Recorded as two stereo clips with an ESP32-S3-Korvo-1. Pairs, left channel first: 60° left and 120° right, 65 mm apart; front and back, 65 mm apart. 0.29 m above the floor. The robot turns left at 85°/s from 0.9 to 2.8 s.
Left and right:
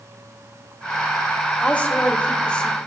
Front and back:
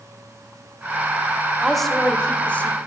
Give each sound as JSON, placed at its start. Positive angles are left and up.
{"t": 1.6, "sound": "a woman speaking", "azimuth_deg": 95, "distance_m": 0.9}